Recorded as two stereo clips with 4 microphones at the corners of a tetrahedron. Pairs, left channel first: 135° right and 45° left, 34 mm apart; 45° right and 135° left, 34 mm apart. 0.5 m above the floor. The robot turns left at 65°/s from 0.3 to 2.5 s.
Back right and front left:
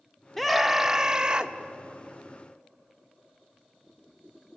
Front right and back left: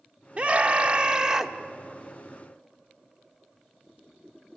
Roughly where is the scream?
Behind left.